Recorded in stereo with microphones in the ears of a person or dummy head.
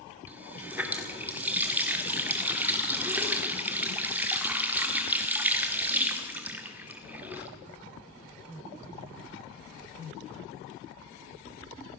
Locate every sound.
0.3 s a running tap: 10° right (ahead or behind), 2.0 m